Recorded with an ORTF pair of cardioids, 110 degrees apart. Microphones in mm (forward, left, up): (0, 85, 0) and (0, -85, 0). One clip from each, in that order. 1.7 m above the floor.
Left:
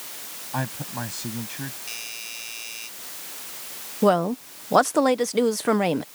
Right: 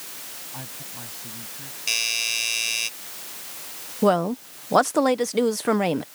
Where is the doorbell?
65° right.